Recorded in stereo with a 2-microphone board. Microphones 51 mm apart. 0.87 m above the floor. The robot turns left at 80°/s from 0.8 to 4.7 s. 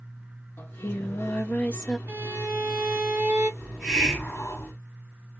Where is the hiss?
155° right, 1.7 m; by 4.7 s 120° left, 1.7 m.